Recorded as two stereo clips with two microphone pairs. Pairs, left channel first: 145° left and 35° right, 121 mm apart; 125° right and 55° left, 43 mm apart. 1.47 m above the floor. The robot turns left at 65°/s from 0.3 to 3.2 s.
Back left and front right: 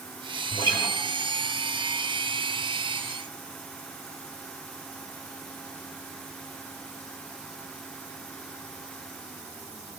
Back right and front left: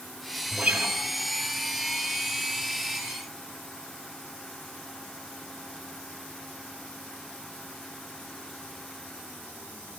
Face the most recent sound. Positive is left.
turn(degrees=-60)